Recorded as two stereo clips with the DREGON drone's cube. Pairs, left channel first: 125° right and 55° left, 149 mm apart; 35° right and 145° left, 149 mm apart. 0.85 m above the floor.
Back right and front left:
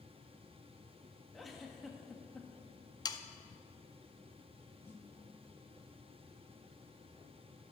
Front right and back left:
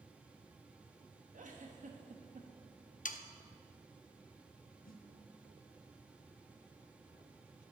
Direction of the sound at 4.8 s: 50° right.